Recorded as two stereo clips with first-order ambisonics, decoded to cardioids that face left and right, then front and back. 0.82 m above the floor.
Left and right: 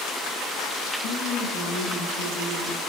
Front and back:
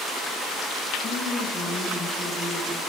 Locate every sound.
1.0 s a woman speaking: 75° left, 6 m